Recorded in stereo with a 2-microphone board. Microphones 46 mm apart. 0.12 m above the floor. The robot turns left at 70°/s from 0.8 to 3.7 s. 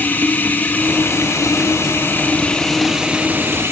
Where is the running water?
140° left, 1.2 m; by 3.7 s 60° right, 1.2 m.